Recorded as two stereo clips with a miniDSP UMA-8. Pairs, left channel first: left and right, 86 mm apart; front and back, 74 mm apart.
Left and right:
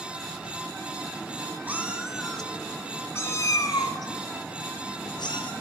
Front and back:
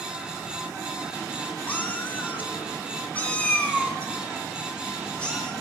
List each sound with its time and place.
1.7 s a cat meowing: 45° right, 0.9 m; by 5.5 s 80° left, 2.0 m